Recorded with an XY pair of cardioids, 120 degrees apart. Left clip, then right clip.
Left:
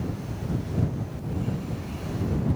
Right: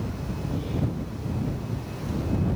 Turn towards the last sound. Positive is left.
No sound to turn to.